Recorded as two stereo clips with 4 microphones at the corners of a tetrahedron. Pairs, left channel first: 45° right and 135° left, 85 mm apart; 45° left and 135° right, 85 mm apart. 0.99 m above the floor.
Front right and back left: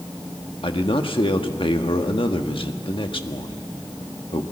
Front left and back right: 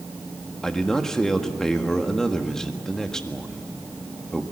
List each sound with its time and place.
0.6 s a man speaking: 40° right, 1.5 m